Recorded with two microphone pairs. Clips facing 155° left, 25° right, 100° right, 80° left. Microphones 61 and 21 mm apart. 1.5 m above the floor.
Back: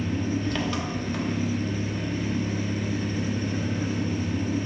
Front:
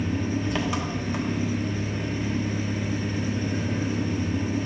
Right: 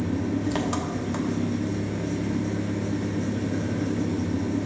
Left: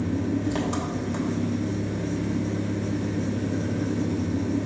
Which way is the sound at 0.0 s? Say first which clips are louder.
Even, even; 85° right.